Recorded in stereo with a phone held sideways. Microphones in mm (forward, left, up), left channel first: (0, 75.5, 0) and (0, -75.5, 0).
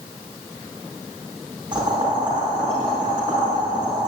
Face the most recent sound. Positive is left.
turn(degrees=-35)  # may be behind; listen again after turning